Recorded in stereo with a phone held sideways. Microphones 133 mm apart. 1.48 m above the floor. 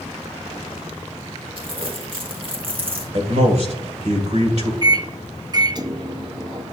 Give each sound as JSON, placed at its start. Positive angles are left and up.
{"t": 1.6, "sound": "crumpling", "side_deg": -45, "distance_m": 1.7}
{"t": 3.1, "sound": "a man speaking", "side_deg": -60, "distance_m": 1.7}
{"t": 4.8, "sound": "a microwave", "side_deg": -35, "distance_m": 0.6}